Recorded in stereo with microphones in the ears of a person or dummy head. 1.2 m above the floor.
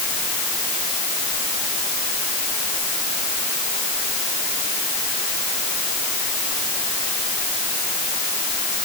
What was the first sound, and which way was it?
Only background noise.